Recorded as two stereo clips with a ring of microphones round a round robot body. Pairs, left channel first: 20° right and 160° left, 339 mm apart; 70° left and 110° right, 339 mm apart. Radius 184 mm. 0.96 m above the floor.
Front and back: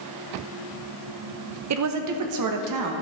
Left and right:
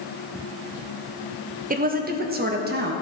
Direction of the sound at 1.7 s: 175° right.